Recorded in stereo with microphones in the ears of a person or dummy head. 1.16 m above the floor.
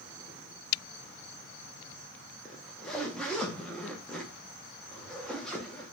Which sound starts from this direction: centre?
A zipper, at 2.5 s.